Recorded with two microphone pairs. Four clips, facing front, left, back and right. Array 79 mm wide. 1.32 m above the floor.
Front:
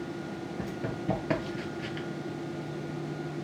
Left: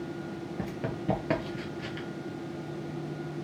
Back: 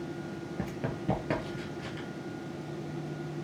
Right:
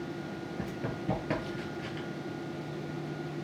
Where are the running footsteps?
135° left, 1.4 m; by 2.1 s 30° left, 1.5 m.